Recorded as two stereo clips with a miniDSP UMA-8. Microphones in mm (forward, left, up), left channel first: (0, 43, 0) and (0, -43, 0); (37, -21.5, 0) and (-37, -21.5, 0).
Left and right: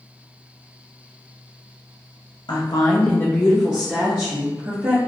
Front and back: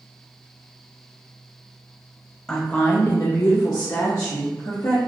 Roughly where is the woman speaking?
Left.